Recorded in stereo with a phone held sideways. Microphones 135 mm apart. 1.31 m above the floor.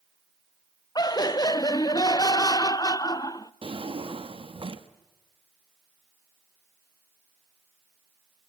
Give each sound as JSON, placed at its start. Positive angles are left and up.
{"t": 0.9, "sound": "laughter", "side_deg": 30, "distance_m": 0.6}
{"t": 3.6, "sound": "a drawer", "side_deg": -45, "distance_m": 1.0}